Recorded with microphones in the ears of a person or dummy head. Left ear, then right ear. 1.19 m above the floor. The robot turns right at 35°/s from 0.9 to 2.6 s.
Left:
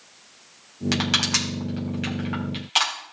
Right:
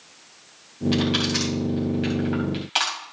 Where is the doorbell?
I don't hear a doorbell.